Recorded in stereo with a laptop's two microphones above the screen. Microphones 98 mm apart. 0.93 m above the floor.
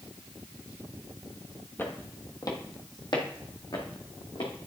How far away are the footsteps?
About 1.0 m.